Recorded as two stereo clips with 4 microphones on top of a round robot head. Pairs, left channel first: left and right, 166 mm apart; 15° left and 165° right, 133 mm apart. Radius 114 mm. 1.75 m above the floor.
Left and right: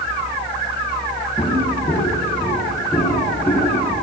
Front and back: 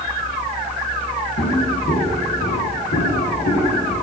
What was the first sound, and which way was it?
Footsteps, 15° left.